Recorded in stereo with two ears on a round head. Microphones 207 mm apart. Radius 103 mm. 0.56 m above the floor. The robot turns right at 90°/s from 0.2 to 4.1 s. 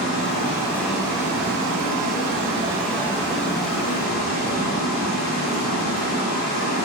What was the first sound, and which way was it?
Running water, 120° left.